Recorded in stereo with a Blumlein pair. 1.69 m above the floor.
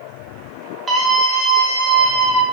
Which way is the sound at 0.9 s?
15° right.